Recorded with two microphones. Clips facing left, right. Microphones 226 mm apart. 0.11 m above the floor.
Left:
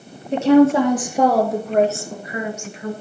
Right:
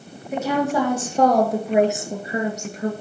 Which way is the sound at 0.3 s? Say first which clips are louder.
Left 10 dB; 30° left (ahead or behind).